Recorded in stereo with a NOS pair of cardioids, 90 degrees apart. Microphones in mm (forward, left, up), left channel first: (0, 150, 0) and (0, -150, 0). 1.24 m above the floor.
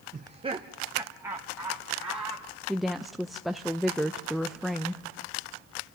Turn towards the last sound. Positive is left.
turn(degrees=0)